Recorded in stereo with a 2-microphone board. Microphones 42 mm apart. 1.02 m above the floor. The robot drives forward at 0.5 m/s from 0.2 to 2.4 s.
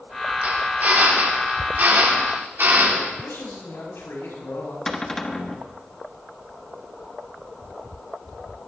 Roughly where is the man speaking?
Left.